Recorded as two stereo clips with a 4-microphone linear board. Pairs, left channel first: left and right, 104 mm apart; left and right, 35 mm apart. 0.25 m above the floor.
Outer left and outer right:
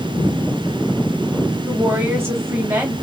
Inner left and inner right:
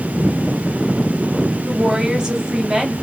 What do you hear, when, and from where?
1.7 s a woman speaking: 20° right (ahead or behind), 1.1 m